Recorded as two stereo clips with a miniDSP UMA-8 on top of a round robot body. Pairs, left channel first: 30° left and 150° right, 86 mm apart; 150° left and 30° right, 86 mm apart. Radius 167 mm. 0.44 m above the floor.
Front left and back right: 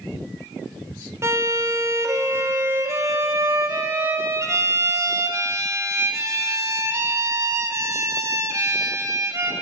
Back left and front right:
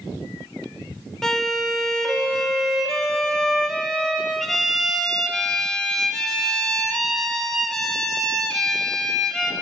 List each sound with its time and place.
1.2 s a violin: 130° right, 1.3 m